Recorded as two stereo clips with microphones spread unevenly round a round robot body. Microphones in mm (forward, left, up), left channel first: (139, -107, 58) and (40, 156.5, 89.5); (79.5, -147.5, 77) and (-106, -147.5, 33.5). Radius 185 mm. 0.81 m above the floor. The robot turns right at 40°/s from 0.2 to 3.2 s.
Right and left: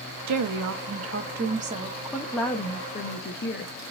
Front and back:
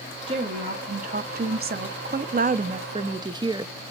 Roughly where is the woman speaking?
Behind left.